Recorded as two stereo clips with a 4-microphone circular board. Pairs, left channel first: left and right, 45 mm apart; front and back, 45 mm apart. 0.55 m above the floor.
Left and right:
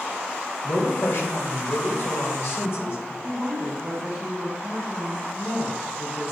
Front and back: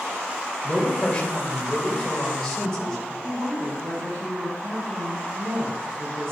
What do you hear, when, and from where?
0.6 s a man speaking: 75° left, 2.5 m
3.2 s a woman speaking: 165° right, 4.5 m